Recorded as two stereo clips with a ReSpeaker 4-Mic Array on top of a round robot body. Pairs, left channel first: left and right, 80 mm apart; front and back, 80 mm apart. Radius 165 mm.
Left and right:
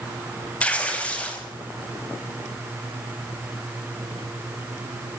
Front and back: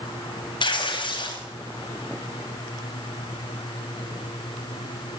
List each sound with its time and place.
0.6 s tearing paper: 15° left, 6.5 m